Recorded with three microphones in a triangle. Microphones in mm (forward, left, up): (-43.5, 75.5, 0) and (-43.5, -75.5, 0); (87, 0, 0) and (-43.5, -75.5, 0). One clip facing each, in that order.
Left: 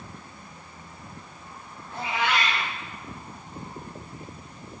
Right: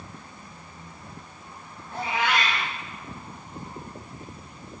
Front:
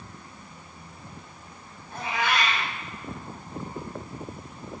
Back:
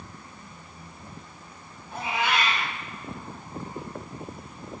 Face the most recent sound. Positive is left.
turn(degrees=-95)